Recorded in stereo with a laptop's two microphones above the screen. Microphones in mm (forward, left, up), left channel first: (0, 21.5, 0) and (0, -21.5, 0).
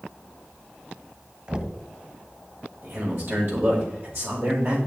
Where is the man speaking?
65° right (ahead or behind), 4 m.